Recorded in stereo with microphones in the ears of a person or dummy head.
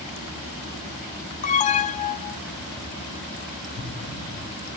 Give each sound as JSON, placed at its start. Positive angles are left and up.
{"t": 1.4, "sound": "an alarm", "side_deg": 35, "distance_m": 0.6}
{"t": 3.8, "sound": "an explosion", "side_deg": 10, "distance_m": 5.0}